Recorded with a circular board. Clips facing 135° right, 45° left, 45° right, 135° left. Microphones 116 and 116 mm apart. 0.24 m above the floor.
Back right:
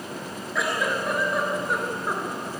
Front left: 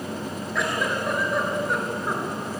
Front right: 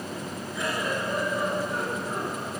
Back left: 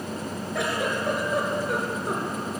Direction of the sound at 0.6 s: 135° left.